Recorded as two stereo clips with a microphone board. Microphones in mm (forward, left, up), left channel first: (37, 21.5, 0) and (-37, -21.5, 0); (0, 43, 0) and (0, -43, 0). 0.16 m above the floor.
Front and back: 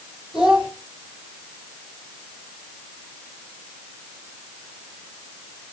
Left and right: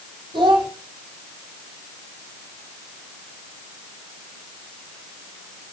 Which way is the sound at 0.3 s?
70° right.